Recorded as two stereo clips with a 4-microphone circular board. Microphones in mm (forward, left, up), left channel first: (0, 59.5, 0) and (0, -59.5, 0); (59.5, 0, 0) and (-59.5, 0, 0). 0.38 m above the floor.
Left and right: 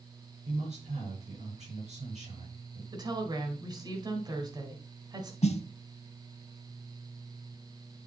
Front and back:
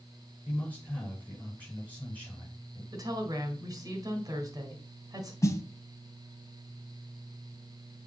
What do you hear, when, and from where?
0.5 s a man speaking: 75° right, 5.5 m
2.9 s a woman speaking: 130° right, 1.9 m
5.4 s a snare drum: 65° left, 0.7 m